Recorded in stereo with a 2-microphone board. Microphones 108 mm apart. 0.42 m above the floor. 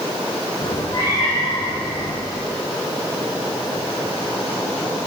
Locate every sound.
0.6 s a cat meowing: 40° left (ahead or behind), 9.5 m